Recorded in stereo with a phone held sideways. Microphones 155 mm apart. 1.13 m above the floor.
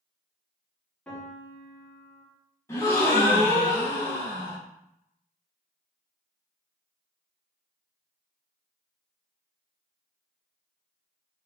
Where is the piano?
5° left (ahead or behind), 1.9 m.